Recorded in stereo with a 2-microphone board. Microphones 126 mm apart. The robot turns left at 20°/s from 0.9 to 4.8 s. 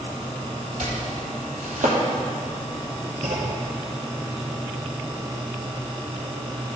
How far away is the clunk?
About 1.7 m.